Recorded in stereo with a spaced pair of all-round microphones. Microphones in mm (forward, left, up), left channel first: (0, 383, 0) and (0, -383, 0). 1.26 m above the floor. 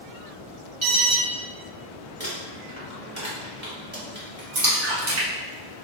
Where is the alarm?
40° right (ahead or behind), 0.9 m.